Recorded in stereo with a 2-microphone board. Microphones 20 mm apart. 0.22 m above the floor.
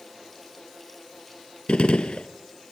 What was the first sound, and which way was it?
A gunshot, 65° left (ahead or behind).